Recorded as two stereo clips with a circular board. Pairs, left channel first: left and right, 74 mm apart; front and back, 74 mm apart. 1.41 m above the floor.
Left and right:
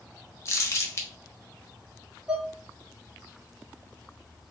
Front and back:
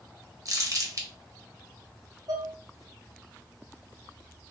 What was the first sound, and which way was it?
Crumpling, 140° left.